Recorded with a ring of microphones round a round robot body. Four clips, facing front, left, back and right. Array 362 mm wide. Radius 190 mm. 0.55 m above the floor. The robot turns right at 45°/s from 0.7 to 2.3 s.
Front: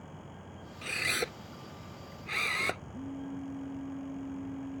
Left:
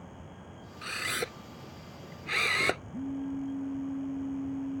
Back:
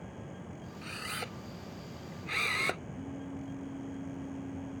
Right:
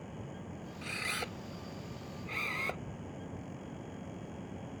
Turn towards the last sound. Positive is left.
turn(degrees=80)